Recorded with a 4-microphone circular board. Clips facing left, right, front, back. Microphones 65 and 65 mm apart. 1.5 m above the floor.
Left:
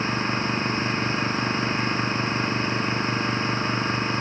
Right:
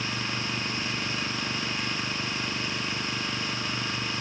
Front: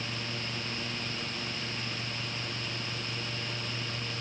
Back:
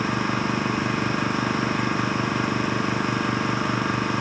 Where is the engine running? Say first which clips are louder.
Left 7 dB, back 14 dB; 150° left.